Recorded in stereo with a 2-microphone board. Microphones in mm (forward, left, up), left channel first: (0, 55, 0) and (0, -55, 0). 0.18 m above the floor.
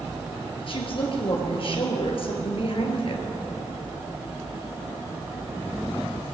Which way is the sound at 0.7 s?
55° left (ahead or behind).